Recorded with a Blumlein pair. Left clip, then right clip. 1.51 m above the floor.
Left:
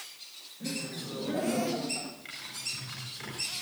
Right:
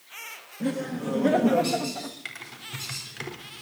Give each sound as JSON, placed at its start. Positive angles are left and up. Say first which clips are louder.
{"t": 0.6, "sound": "laughter", "louder": "right 7 dB", "azimuth_deg": -60, "distance_m": 2.5}
{"t": 2.2, "sound": "typing on a keyboard", "louder": "even", "azimuth_deg": -60, "distance_m": 4.0}